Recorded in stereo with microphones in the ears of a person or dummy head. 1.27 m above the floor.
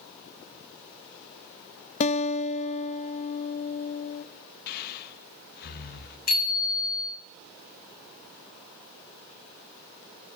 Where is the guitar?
40° left (ahead or behind), 0.5 m.